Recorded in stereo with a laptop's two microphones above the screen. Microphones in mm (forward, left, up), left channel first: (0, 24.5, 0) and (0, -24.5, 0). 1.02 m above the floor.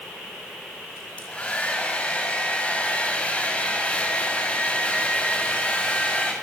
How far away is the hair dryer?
About 6 m.